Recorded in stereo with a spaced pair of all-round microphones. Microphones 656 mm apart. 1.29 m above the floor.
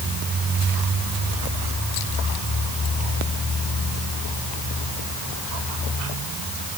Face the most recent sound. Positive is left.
No sound to turn to.